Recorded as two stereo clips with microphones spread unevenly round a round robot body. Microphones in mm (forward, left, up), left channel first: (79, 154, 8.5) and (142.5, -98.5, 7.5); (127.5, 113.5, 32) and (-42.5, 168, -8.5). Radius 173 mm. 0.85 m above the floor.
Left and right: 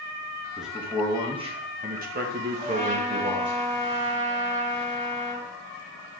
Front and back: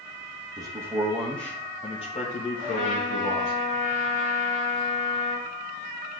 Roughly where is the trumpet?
Ahead.